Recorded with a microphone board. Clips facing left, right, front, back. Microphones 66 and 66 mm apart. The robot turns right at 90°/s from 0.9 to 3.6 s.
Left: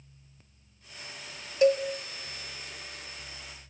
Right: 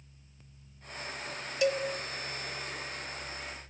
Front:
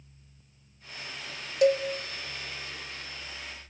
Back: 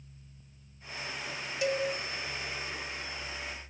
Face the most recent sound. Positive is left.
turn(degrees=-150)